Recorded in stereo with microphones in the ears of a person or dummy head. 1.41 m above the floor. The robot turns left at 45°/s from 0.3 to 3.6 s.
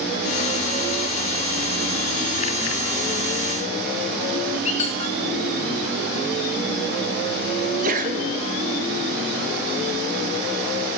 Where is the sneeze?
45° right (ahead or behind), 0.8 m.